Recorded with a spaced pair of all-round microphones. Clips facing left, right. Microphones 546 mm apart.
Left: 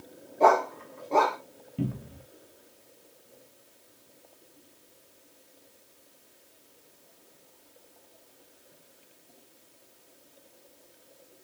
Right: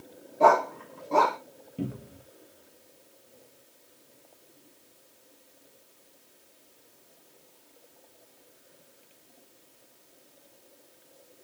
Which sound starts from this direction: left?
A cupboard door, at 1.8 s.